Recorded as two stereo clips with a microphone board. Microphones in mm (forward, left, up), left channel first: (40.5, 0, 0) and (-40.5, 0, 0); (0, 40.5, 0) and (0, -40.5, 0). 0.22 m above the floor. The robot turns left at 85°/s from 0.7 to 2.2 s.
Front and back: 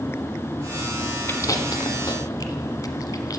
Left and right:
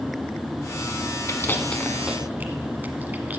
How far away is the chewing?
About 1.1 m.